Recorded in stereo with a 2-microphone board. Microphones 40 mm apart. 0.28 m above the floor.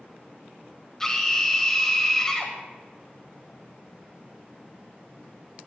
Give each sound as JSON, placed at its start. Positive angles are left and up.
{"t": 1.0, "sound": "a scream", "side_deg": 15, "distance_m": 1.6}